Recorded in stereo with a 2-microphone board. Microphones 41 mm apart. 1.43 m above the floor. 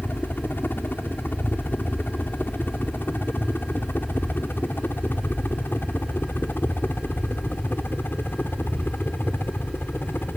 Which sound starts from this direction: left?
A helicopter, at 0.0 s.